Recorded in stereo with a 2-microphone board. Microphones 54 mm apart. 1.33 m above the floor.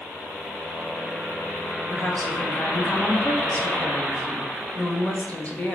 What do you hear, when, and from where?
1.9 s a woman speaking: 25° left (ahead or behind), 1.6 m